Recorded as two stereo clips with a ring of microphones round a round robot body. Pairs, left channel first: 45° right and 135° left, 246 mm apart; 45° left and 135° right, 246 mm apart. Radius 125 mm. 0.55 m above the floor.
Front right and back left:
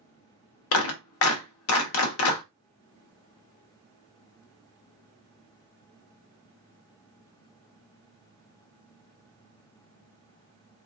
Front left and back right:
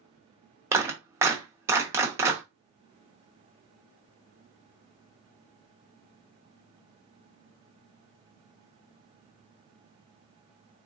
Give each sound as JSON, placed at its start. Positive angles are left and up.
{"t": 0.7, "sound": "a clap", "azimuth_deg": -55, "distance_m": 1.1}